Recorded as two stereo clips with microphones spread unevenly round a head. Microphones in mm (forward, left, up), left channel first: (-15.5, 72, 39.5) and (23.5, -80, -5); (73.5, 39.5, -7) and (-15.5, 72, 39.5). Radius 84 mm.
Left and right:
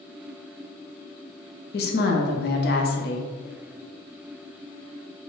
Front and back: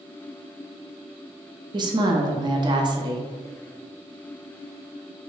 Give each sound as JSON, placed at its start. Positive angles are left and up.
{"t": 1.7, "sound": "a woman speaking", "azimuth_deg": 125, "distance_m": 0.6}